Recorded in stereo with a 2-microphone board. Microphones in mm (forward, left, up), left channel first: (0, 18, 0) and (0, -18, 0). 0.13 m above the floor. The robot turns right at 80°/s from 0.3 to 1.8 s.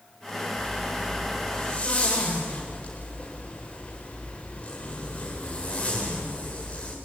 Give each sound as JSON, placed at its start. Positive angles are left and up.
{"t": 0.6, "sound": "a zipper", "azimuth_deg": -65, "distance_m": 9.0}